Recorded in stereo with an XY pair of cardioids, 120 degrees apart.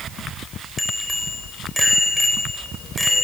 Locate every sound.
0.8 s a bicycle bell: 5° left, 6 m